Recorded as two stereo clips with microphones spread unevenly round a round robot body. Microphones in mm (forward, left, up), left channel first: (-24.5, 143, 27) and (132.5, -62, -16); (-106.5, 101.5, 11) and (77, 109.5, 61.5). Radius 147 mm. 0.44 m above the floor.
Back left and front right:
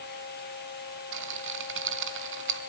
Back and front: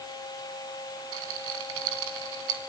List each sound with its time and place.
1.1 s a rattle: 15° right, 3 m